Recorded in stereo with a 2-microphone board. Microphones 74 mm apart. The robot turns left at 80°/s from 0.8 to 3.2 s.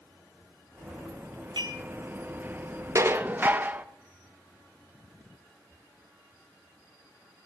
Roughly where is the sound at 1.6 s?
Right.